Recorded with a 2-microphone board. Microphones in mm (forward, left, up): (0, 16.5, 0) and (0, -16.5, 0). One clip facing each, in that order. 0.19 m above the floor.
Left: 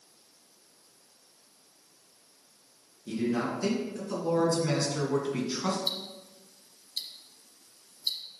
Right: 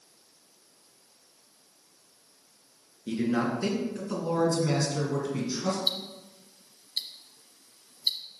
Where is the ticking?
35° right (ahead or behind), 0.9 m.